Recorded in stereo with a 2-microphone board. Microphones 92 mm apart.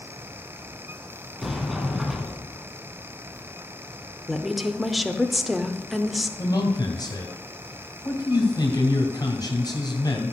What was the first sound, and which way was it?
A sliding door, centre (ahead or behind).